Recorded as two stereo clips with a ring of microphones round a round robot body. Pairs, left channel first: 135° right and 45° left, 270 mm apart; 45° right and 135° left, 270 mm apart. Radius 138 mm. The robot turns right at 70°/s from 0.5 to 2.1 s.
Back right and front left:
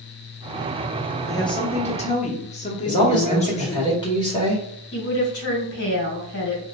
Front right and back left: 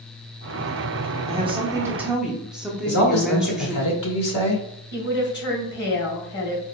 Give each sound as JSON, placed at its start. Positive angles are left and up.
{"t": 1.3, "sound": "a woman speaking", "azimuth_deg": 160, "distance_m": 0.7}
{"t": 2.9, "sound": "a man speaking", "azimuth_deg": -65, "distance_m": 1.6}
{"t": 4.9, "sound": "a woman speaking", "azimuth_deg": -95, "distance_m": 2.0}